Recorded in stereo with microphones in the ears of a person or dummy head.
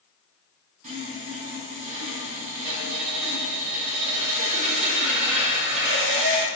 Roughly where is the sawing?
Right.